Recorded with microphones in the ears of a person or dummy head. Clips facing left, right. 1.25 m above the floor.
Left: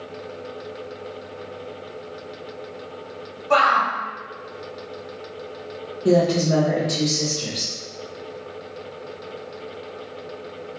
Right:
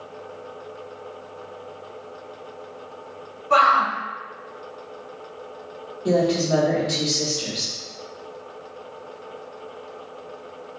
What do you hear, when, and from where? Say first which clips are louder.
3.5 s a shout: left 1 dB; 55° left (ahead or behind), 1.1 m
6.0 s a woman speaking: left 2 dB; 20° left (ahead or behind), 0.8 m